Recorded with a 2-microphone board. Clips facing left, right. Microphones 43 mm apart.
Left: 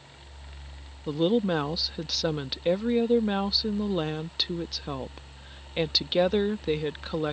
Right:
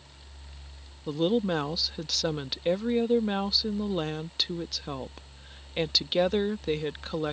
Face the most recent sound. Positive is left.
turn(degrees=5)  # may be behind; listen again after turning